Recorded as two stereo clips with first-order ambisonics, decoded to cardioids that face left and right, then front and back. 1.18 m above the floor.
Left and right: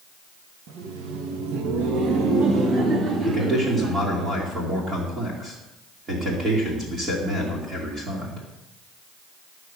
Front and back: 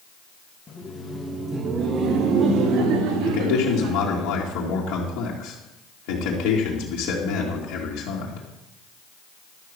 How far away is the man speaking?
About 2.5 m.